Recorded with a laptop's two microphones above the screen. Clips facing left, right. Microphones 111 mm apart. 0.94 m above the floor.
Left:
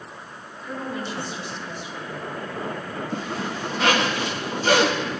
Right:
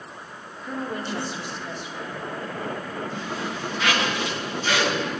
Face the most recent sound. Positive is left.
turn(degrees=55)  # may be behind; listen again after turning